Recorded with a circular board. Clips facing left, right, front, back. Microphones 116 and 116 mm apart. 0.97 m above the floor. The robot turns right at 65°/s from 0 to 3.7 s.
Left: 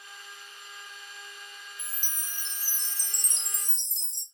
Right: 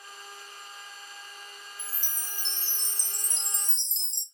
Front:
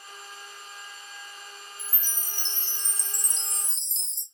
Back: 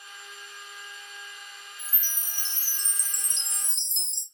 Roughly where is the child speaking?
No child speaking in this recording.